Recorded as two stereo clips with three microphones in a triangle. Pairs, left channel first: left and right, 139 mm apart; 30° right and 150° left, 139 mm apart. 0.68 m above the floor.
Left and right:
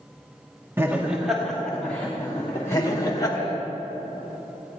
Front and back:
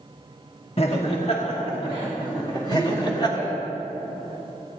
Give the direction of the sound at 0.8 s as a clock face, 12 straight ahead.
1 o'clock.